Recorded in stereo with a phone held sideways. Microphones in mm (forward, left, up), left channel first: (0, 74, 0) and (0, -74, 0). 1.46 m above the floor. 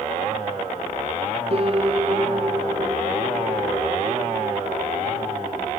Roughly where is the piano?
Right.